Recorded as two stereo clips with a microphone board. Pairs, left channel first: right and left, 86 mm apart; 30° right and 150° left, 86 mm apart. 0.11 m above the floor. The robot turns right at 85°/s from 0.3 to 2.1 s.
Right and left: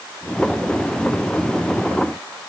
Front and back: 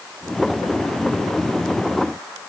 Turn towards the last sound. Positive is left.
No sound to turn to.